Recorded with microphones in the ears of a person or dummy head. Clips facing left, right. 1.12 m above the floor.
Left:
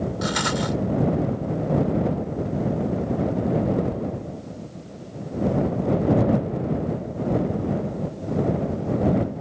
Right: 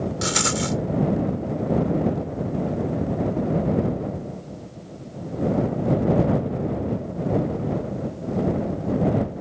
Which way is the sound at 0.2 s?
40° right (ahead or behind).